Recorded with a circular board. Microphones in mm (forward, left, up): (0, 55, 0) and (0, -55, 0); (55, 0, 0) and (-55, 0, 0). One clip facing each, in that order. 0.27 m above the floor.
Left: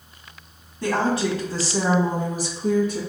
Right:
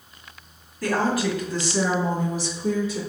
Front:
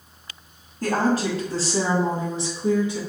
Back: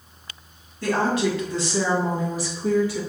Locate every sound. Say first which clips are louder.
0.8 s a woman speaking: left 1 dB, even; 30° left, 1.6 m; by 3.0 s 70° left, 2 m